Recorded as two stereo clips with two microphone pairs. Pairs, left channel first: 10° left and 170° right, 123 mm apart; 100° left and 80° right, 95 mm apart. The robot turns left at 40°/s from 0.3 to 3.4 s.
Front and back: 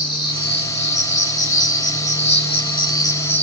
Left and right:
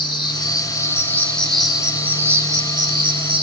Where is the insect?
60° left, 1.7 m; by 3.4 s 65° right, 1.7 m.